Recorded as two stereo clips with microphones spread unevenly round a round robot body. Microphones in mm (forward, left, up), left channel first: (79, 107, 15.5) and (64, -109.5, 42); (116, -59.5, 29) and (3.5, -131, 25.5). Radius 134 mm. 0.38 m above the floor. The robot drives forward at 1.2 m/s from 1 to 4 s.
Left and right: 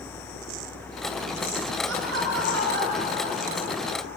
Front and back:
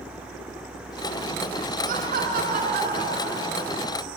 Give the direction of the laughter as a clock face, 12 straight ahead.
5 o'clock.